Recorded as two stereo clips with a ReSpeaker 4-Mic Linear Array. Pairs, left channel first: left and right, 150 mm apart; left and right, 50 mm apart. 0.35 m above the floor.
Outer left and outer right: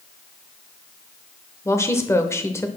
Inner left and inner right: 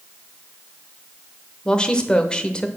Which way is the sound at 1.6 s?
20° left (ahead or behind).